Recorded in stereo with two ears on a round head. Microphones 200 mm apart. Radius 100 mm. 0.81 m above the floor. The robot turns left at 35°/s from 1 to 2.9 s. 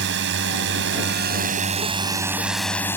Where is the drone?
125° right; by 3.0 s 170° left.